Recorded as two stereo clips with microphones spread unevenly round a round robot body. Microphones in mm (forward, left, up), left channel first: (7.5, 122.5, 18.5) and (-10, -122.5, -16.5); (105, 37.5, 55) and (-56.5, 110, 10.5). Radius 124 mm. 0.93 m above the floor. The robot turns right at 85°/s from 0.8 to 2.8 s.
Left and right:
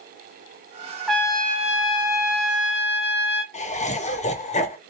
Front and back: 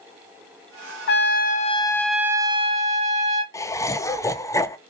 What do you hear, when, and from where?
1.1 s a trumpet: 10° right, 0.7 m; by 3.4 s 135° left, 0.7 m
3.5 s laughter: 60° left, 0.5 m